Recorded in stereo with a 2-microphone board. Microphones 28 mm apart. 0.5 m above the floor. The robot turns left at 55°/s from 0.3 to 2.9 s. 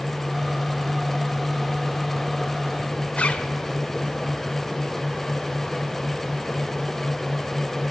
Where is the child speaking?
I don't hear a child speaking.